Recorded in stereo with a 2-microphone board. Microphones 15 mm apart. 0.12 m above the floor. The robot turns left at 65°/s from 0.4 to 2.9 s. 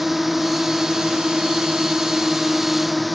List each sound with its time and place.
0.0 s a drone: 20° right; by 3.1 s straight behind